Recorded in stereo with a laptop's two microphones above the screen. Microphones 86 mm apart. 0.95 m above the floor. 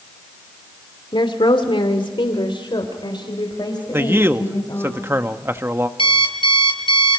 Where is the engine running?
No engine running in this recording.